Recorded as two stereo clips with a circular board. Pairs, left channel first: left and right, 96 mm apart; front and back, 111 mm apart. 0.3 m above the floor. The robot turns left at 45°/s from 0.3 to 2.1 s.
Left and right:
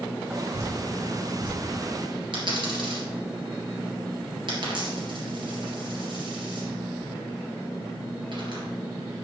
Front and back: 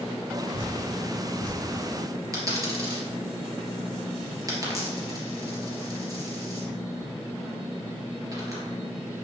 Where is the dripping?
35° right, 3.5 m; by 1.6 s 80° right, 3.5 m.